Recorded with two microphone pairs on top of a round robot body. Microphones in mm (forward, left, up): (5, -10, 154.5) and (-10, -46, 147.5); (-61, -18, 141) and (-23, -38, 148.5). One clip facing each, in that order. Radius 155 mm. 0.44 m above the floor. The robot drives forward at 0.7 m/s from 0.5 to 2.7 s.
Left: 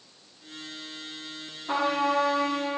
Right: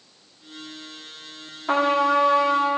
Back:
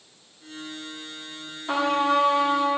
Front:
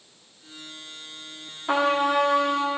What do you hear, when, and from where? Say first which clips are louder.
1.7 s a trumpet: right 6 dB, front 1 dB; 105° right, 1.1 m; by 2.8 s 140° right, 1.5 m